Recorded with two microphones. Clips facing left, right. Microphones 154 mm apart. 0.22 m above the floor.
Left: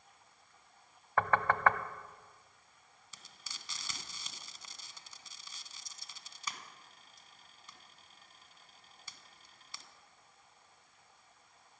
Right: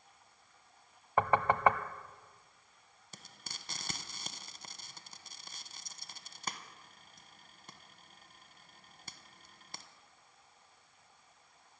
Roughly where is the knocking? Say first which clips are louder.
Right 2 dB; centre.